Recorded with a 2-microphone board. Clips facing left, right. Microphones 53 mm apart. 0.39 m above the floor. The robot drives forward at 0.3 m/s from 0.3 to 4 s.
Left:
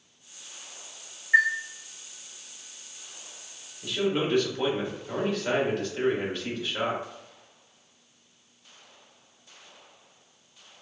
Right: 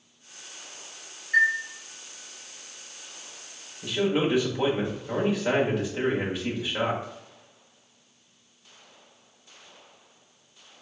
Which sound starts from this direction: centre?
A man speaking, at 3.8 s.